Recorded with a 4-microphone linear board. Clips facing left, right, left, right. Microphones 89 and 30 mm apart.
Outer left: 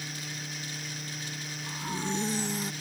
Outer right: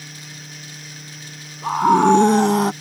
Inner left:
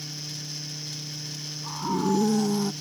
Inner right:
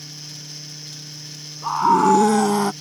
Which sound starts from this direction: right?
A scream, at 1.6 s.